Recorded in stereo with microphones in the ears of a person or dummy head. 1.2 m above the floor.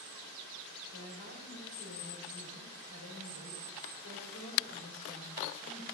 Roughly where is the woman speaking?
Left.